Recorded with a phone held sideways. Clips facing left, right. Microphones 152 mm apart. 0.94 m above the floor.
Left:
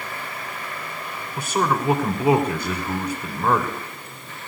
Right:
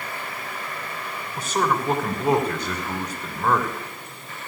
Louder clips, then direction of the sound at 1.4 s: Left 1 dB; 10° left (ahead or behind).